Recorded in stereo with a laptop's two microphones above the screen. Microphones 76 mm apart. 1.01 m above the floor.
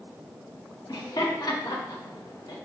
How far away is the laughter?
About 0.9 m.